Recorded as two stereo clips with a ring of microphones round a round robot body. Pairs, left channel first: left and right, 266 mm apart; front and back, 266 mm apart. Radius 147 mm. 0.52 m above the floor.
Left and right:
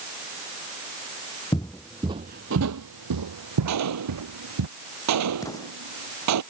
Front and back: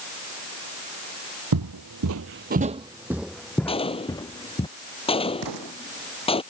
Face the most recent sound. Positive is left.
turn(degrees=170)